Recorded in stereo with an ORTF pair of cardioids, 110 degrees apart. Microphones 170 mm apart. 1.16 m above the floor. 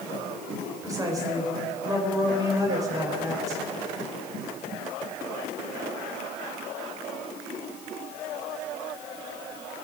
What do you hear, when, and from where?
0.8 s a woman speaking: 20° right, 4 m